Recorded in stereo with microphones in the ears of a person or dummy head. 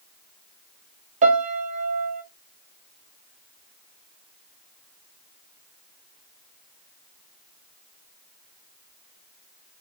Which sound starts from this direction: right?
A piano, at 1.2 s.